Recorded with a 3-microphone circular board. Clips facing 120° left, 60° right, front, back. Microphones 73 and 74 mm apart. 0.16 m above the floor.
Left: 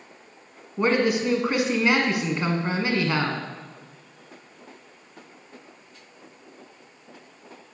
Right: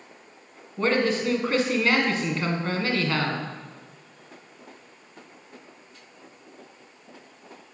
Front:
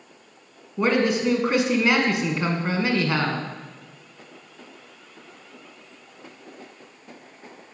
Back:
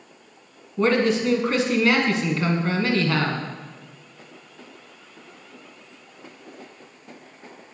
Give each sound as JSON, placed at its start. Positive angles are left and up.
{"t": 0.8, "sound": "a man speaking", "azimuth_deg": 65, "distance_m": 1.3}